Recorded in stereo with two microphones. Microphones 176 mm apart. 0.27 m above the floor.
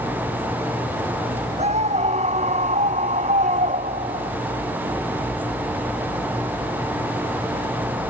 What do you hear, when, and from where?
1.6 s a scream: 40° right (ahead or behind); by 4.3 s 45° right (ahead or behind)